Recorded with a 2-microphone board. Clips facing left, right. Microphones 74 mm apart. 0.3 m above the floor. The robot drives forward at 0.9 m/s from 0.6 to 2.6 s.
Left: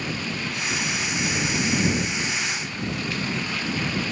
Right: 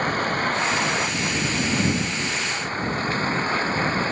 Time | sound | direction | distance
0.0 | a vehicle | 45° right (ahead or behind) | ?